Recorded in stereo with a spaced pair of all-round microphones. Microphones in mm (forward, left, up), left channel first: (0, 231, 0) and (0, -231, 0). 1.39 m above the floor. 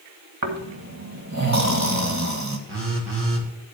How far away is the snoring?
About 1.4 m.